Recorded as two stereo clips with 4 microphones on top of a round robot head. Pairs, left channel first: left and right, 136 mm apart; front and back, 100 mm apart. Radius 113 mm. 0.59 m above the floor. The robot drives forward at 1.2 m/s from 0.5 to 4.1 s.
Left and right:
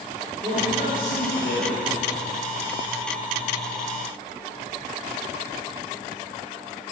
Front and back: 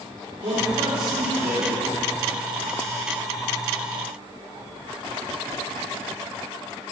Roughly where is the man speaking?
Behind right.